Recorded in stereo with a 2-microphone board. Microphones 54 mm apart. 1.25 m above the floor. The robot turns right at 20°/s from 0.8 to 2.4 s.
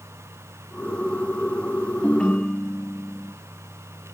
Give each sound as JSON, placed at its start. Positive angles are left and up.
{"t": 2.0, "sound": "a ringtone", "side_deg": 20, "distance_m": 2.0}